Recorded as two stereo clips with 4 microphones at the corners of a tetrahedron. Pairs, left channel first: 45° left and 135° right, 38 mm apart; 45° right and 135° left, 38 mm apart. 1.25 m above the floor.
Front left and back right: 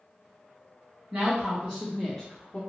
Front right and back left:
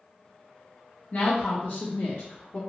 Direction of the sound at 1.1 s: 85° right.